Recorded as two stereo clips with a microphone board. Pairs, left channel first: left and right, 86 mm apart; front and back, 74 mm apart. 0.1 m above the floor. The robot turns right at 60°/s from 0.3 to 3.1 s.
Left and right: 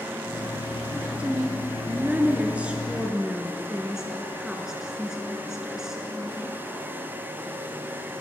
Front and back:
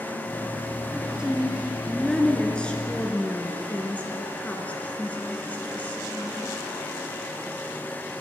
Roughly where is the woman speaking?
Behind right.